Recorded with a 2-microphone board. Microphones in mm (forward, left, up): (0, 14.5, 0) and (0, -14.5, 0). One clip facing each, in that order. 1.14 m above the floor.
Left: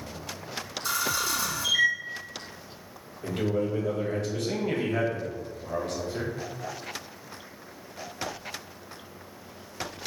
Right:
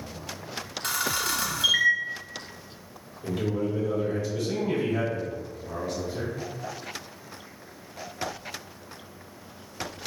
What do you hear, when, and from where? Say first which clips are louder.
0.8 s a camera shutter: even; 65° right (ahead or behind), 0.9 m
3.2 s a man speaking: left 1 dB; 70° left (ahead or behind), 1.1 m